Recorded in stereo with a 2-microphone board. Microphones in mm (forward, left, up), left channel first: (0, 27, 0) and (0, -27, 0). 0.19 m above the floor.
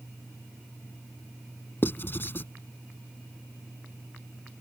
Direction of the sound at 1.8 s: 40° left (ahead or behind).